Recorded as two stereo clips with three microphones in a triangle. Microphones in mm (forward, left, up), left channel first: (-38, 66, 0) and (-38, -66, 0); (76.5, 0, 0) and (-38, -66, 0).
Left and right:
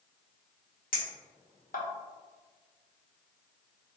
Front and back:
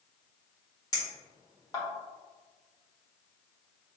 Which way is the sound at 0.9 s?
95° left.